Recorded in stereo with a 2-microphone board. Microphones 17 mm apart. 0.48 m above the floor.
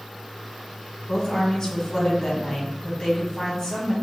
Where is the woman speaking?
50° left (ahead or behind), 1.7 m.